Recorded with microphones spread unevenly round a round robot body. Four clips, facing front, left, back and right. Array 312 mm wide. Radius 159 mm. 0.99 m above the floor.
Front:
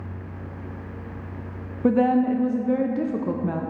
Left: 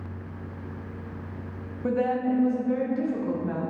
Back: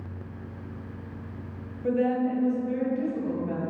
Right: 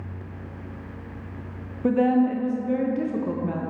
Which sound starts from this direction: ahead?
A woman speaking, at 1.8 s.